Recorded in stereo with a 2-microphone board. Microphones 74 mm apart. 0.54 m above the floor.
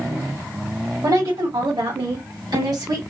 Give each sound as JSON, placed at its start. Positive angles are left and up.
{"t": 1.0, "sound": "a woman speaking", "side_deg": -75, "distance_m": 2.5}